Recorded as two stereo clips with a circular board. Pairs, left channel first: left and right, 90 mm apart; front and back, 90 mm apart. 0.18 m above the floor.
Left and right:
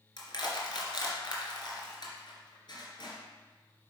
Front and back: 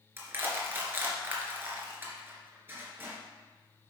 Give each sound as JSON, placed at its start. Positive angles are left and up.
{"t": 0.2, "sound": "crushing", "azimuth_deg": 115, "distance_m": 2.0}